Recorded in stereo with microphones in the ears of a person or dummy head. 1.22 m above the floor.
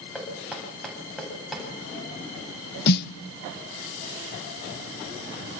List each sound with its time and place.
0.1 s knocking: centre (ahead or behind), 8 m
2.9 s a snare drum: 60° left (ahead or behind), 0.7 m